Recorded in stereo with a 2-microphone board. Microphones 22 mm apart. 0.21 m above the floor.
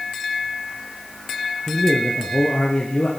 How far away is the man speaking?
About 4 m.